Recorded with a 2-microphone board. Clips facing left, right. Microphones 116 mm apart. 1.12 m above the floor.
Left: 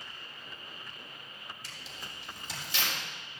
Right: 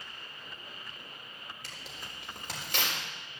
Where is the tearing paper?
60° right (ahead or behind), 4 m.